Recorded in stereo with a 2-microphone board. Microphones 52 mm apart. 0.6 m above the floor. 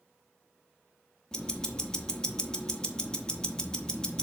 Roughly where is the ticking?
Centre.